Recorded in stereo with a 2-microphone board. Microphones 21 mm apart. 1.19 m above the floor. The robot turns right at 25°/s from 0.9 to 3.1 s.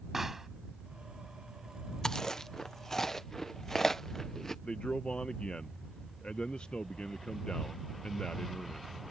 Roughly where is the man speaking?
Left.